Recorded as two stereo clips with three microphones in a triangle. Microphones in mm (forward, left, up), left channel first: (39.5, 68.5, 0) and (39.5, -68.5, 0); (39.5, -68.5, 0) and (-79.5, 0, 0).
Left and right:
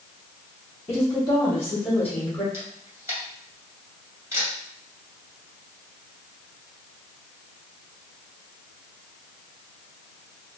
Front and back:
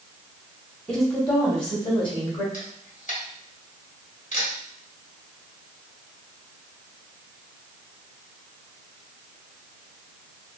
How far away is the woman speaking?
About 1.4 m.